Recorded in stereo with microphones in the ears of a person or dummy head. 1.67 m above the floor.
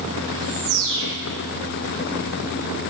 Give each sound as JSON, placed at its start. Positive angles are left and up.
{"t": 0.3, "sound": "a bird", "side_deg": -65, "distance_m": 1.0}